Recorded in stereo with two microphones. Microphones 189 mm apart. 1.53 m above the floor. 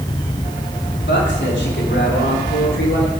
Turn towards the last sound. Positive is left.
turn(degrees=75)  # may be behind; listen again after turning